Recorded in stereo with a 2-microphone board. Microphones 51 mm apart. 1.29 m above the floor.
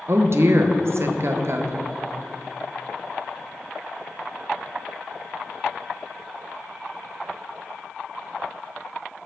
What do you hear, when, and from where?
0.1 s a woman speaking: 60° right (ahead or behind), 0.6 m